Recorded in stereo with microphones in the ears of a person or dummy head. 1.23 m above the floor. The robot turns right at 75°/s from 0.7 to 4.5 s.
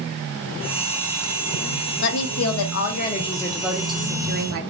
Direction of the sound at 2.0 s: 60° left.